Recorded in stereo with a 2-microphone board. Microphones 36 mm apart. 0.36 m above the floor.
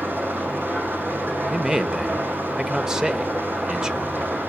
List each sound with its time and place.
0.0 s an engine running: 75° right (ahead or behind), 6 m
1.5 s a man speaking: 15° right (ahead or behind), 1.1 m